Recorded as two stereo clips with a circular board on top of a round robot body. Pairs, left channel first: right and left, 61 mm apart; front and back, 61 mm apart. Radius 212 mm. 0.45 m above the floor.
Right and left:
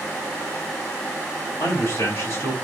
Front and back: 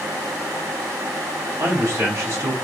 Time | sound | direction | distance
1.6 | a man speaking | 130° right | 4 m